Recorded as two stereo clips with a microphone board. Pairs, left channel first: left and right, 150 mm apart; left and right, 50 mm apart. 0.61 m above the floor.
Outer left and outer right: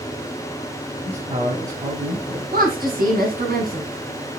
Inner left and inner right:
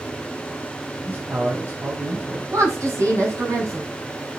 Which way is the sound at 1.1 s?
45° right (ahead or behind).